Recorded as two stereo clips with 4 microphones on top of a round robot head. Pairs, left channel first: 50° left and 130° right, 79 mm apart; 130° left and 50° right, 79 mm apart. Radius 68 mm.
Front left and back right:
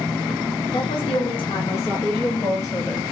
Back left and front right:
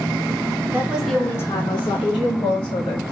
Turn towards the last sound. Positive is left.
turn(degrees=135)